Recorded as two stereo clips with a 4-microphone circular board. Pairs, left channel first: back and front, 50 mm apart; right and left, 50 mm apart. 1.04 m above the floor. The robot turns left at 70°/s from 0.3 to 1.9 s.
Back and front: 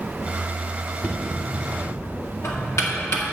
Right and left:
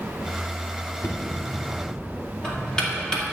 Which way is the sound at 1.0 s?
105° right.